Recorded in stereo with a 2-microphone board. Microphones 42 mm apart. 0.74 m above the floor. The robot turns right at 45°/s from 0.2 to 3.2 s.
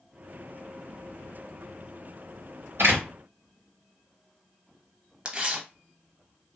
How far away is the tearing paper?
About 0.6 m.